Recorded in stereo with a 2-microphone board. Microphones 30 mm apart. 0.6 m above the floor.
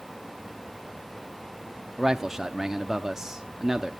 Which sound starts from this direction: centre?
A man speaking, at 2.0 s.